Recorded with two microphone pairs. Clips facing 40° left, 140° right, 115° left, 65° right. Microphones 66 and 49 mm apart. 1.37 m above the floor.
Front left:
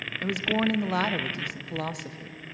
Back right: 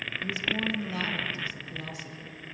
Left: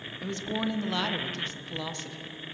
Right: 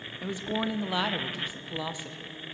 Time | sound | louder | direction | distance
0.2 | a woman speaking | front left 6 dB, right 1 dB | 15° left | 0.7 m